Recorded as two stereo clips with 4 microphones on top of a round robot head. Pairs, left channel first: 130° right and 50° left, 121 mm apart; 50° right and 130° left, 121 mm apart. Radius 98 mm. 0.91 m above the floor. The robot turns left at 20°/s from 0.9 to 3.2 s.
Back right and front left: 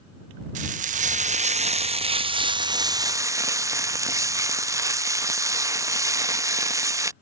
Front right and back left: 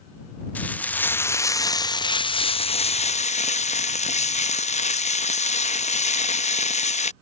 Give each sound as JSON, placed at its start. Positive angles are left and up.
{"t": 0.6, "sound": "frying", "azimuth_deg": 30}